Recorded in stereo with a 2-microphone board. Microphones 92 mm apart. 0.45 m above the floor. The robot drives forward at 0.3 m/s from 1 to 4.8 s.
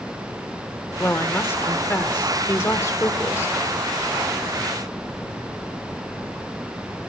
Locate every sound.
1.0 s a woman speaking: 25° left (ahead or behind), 1.5 m; by 3.5 s 30° left (ahead or behind), 1.2 m